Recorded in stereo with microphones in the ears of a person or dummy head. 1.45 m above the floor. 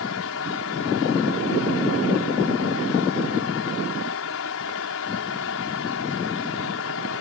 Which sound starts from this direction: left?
A fan, at 0.0 s.